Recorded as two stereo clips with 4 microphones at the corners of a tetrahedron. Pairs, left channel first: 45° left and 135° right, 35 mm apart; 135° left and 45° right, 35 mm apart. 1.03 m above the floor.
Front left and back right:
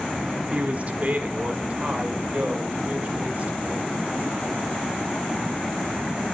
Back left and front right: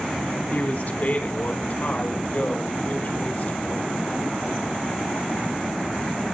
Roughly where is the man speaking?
Behind.